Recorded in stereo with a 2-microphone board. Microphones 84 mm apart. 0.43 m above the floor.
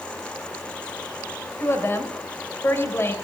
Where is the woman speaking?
30° left (ahead or behind), 1.6 m.